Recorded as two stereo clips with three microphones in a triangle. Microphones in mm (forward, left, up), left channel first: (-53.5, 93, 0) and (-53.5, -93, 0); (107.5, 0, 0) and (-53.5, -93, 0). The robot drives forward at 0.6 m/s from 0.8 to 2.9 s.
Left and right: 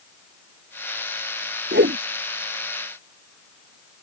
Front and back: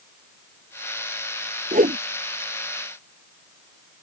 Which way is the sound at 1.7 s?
105° right.